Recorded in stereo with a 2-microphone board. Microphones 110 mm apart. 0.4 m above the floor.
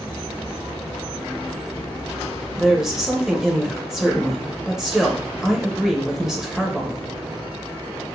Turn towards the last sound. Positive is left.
turn(degrees=-5)  # may be behind; listen again after turning